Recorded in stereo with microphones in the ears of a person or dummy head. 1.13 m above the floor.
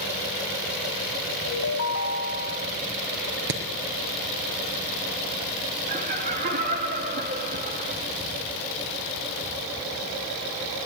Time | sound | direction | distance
1.5 | a ringtone | 75° left (ahead or behind) | 2.5 m
3.5 | hammering | 70° right (ahead or behind) | 4.5 m
5.9 | laughter | 45° right (ahead or behind) | 2 m